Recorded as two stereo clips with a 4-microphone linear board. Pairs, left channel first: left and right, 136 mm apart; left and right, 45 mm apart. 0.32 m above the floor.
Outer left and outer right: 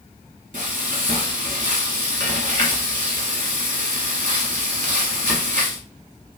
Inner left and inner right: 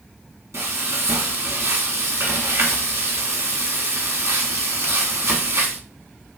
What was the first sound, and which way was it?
Frying, 75° right (ahead or behind).